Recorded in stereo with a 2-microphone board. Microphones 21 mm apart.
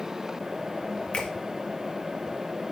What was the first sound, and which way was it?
A finger snap, 60° left (ahead or behind).